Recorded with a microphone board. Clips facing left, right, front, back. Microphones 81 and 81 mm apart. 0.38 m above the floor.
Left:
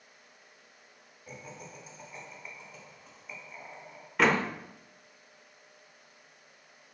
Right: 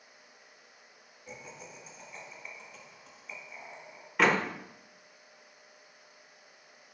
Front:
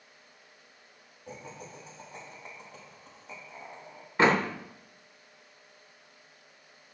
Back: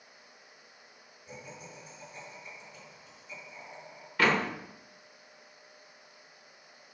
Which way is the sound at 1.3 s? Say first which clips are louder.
Left 1 dB, front 3 dB; 10° left.